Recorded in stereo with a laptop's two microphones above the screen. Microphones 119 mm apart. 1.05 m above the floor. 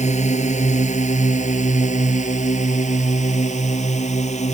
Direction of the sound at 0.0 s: 75° left (ahead or behind).